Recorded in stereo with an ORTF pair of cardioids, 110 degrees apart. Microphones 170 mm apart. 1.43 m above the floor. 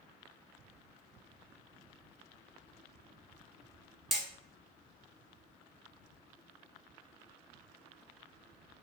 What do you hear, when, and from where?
4.1 s hammering: straight ahead, 1.1 m